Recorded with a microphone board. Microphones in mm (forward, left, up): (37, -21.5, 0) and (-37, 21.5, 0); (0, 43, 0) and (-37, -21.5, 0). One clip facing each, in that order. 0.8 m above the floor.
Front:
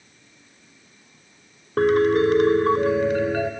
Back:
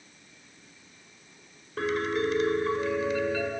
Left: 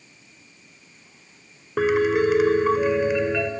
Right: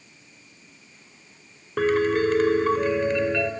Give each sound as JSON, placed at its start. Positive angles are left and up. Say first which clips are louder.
{"t": 1.8, "sound": "a piano", "louder": "front 11 dB, left 1 dB", "azimuth_deg": -15, "distance_m": 0.7}